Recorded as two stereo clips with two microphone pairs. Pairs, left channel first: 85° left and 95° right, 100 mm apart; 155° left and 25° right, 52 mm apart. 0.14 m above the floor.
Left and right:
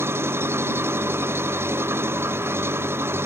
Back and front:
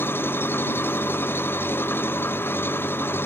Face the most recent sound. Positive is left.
turn(degrees=-160)